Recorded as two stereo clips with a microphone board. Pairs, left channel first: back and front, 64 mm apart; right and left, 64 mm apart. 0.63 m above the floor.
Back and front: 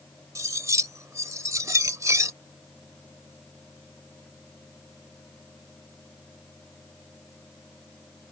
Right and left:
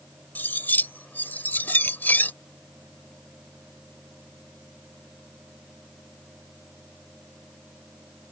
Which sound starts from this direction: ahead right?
Cutlery clinking, at 0.3 s.